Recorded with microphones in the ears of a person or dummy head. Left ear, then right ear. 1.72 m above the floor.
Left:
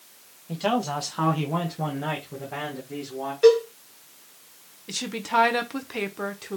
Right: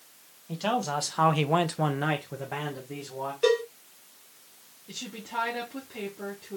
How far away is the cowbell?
About 1.8 m.